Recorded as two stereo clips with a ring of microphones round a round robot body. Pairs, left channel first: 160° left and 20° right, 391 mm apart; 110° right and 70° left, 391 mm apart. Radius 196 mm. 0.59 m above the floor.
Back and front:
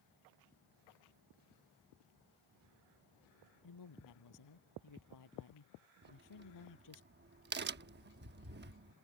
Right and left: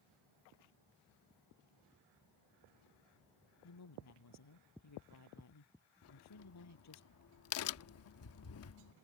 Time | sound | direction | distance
3.6 | a woman speaking | 160° right | ?
6.0 | a crack | 75° right | ?